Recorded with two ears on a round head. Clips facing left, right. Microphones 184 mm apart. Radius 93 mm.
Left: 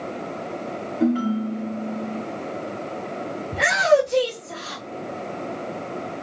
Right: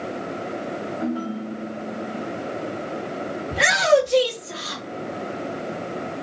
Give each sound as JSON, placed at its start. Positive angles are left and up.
{"t": 1.0, "sound": "a ringtone", "side_deg": 45, "distance_m": 2.0}
{"t": 3.5, "sound": "a shout", "side_deg": -50, "distance_m": 1.5}